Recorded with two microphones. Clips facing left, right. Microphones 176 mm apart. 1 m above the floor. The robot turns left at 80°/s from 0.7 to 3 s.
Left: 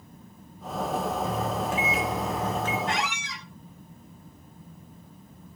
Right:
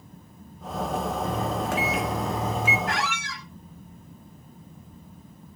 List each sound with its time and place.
1.2 s a microwave: 55° right, 1.8 m; by 2.8 s straight behind, 1.8 m
2.9 s a squeak: 30° left (ahead or behind), 1.4 m; by 3.5 s 15° left (ahead or behind), 1.4 m